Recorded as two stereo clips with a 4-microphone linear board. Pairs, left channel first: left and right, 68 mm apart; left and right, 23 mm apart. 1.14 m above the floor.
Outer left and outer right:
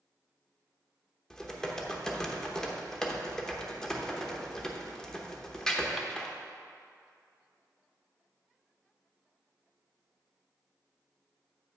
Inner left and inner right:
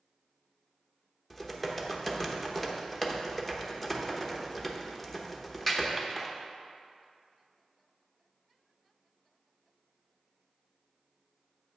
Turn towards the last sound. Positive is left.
turn(degrees=10)  # may be behind; listen again after turning